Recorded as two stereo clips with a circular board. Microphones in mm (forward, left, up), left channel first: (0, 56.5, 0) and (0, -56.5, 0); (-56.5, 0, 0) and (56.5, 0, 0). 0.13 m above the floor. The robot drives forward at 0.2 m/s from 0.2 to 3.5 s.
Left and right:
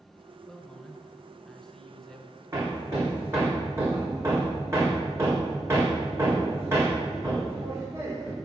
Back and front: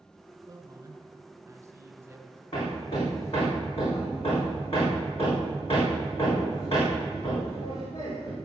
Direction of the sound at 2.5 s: 155° right.